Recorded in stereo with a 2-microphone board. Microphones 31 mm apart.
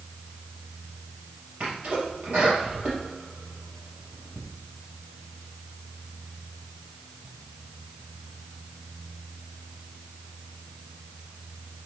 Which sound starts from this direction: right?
A sneeze, at 1.6 s.